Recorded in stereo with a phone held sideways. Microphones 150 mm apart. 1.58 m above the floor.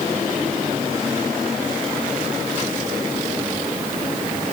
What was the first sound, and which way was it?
Only background noise.